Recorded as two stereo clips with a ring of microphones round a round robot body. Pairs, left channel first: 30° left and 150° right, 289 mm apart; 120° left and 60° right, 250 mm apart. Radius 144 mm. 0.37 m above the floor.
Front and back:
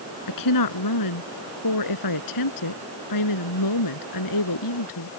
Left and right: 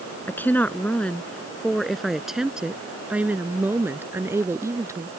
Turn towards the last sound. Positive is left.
turn(degrees=15)